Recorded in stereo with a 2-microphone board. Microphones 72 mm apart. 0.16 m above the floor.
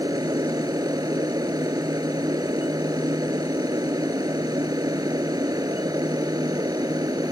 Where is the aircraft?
60° right (ahead or behind).